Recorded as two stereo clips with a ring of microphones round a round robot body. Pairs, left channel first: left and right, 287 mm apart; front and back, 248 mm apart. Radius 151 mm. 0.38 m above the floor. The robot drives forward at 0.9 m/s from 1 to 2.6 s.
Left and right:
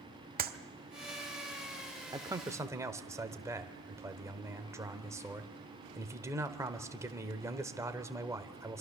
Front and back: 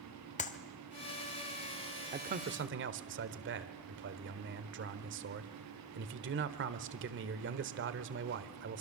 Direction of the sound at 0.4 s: 45° right.